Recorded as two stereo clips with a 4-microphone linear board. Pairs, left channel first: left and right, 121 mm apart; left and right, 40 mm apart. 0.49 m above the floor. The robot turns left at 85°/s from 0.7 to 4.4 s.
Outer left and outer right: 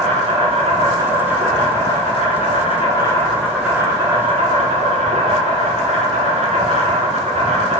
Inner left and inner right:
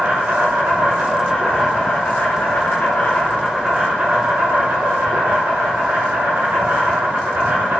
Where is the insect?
120° right, 0.8 m; by 7.8 s 75° right, 0.8 m.